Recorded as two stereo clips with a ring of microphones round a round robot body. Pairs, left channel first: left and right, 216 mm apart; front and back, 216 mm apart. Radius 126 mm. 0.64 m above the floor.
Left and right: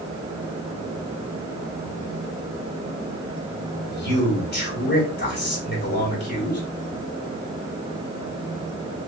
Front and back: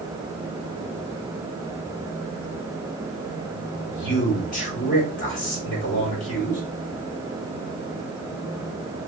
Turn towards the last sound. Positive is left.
turn(degrees=55)